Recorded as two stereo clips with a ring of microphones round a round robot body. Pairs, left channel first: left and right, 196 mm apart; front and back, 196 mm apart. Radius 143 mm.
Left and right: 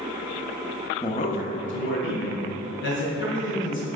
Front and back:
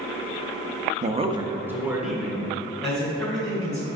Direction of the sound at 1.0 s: 155° left.